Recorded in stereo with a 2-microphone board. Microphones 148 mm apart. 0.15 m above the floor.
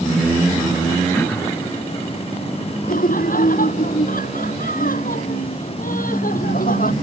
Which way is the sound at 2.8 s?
70° left (ahead or behind).